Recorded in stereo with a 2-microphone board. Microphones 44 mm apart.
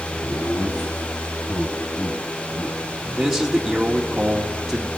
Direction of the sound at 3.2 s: 5° right (ahead or behind).